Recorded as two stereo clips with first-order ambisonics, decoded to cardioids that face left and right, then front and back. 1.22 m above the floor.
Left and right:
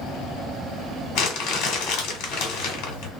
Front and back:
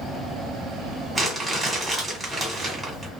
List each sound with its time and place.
1.1 s crumpling: 100° left, 1.5 m